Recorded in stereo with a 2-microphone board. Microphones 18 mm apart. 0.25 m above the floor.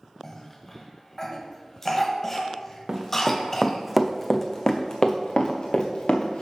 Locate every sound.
0.2 s a cough: 20° left (ahead or behind), 1.0 m
2.9 s running footsteps: 40° right (ahead or behind), 1.0 m; by 6.4 s 65° left (ahead or behind), 1.5 m